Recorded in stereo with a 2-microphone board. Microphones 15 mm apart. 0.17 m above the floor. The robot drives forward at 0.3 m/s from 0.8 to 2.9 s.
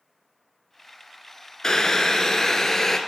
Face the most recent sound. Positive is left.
turn(degrees=30)  # may be behind; listen again after turning